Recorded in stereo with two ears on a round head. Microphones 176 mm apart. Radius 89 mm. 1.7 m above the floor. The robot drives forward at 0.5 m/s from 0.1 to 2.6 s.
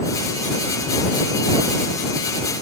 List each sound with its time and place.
Only background noise.